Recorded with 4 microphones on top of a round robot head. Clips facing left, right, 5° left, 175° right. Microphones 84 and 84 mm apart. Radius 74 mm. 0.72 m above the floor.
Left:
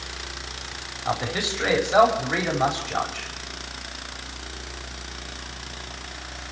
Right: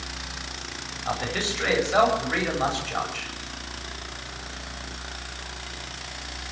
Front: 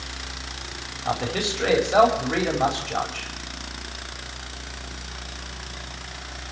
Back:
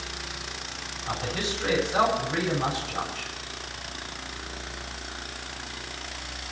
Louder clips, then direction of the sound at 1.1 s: Left 2 dB, front 5 dB; 15° left.